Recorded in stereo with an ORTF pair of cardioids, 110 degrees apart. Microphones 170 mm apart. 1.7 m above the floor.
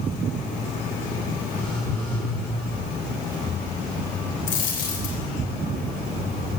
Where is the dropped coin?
60° left, 3.5 m.